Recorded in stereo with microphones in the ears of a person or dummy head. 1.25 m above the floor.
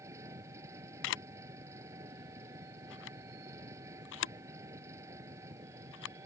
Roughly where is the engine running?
Centre.